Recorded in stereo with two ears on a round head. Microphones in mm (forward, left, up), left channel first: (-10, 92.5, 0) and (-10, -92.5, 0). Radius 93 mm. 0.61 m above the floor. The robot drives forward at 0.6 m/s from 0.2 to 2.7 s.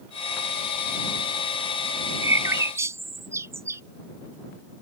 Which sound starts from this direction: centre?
A bird, at 2.2 s.